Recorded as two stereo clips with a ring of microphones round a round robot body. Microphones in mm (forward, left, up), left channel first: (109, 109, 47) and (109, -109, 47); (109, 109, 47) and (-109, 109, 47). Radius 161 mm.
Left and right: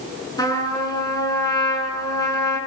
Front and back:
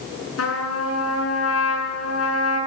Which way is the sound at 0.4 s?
15° left.